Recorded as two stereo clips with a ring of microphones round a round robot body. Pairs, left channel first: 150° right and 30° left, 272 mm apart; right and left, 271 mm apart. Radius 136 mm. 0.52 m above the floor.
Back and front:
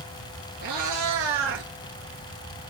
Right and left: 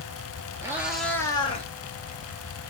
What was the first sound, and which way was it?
A cat meowing, 10° left.